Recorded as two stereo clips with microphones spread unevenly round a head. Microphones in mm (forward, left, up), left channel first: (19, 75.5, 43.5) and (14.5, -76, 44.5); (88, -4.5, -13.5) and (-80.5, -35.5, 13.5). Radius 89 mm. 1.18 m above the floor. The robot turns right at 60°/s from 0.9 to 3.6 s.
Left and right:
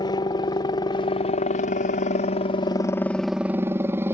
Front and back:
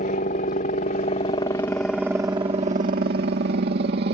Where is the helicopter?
35° left; by 4.1 s 165° right.